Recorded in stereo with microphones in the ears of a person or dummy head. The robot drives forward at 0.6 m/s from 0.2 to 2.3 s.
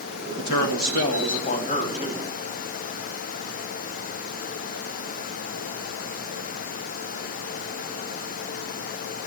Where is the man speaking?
50° left (ahead or behind), 1.8 m; by 2.2 s 30° left (ahead or behind), 2.5 m.